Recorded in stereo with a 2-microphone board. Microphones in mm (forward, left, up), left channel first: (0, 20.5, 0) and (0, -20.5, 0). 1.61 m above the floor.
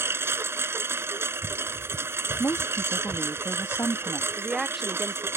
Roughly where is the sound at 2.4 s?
Left.